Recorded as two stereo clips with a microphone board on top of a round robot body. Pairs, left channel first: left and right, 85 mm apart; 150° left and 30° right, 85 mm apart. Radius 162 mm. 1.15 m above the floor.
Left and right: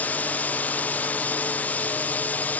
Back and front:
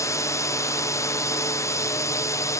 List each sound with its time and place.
0.0 s a drone: 150° left